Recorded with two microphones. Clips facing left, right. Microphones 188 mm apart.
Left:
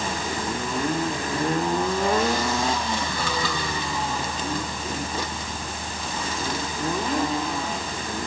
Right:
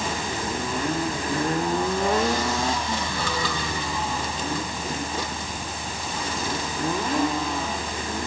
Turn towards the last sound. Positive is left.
No sound to turn to.